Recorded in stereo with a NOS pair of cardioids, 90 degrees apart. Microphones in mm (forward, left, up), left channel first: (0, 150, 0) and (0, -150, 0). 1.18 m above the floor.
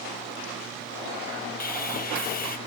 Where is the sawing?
30° left, 1.3 m.